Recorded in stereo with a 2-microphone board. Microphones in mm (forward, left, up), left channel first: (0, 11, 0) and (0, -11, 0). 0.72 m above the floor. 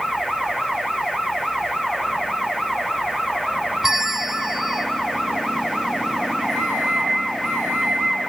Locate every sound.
3.8 s a bell: 15° right (ahead or behind), 0.5 m
6.5 s a microwave: 15° right (ahead or behind), 4.5 m